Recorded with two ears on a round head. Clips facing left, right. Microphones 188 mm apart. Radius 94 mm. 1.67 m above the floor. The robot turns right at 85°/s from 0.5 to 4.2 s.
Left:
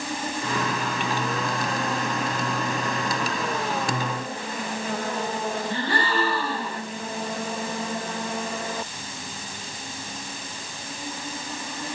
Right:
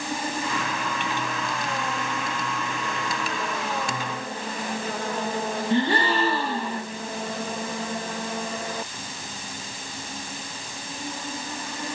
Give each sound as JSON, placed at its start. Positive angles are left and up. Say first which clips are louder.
{"t": 5.7, "sound": "a gasp", "louder": "right 7 dB", "side_deg": -20, "distance_m": 1.6}